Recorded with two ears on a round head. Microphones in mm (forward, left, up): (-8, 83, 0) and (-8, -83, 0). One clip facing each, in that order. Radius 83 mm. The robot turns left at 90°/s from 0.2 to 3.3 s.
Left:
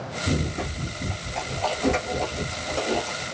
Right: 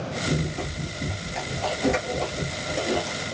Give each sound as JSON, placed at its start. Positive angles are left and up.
{"t": 0.3, "sound": "running footsteps", "side_deg": 30, "distance_m": 1.3}